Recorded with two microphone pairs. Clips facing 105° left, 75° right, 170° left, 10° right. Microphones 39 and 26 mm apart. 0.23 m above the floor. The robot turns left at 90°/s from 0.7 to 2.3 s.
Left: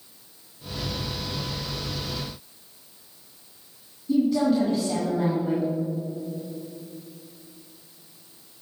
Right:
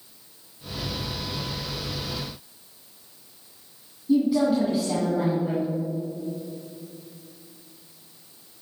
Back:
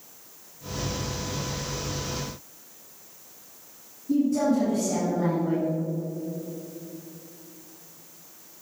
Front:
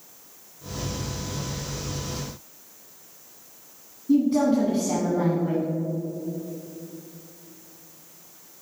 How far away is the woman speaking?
About 2 m.